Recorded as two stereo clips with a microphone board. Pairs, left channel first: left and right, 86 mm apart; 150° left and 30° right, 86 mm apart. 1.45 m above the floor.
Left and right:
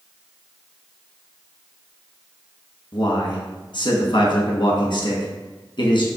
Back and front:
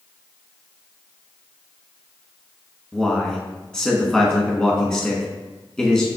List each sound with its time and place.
2.9 s a man speaking: 70° left, 1.2 m